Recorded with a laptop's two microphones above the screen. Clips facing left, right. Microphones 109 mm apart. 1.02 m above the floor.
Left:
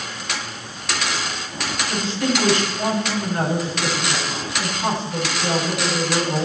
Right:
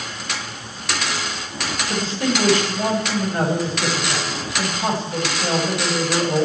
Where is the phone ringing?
No phone ringing in this recording.